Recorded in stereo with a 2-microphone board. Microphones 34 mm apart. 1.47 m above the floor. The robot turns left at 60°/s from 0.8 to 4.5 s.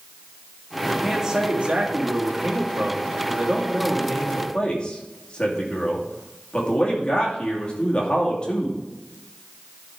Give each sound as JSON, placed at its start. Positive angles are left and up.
{"t": 1.0, "sound": "a man speaking", "azimuth_deg": -5, "distance_m": 2.5}